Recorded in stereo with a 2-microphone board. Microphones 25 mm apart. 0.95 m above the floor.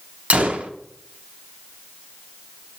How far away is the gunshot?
About 0.7 m.